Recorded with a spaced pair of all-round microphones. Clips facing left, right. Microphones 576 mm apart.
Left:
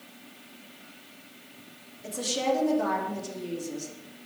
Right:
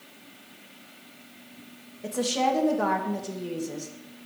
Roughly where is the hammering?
No hammering in this recording.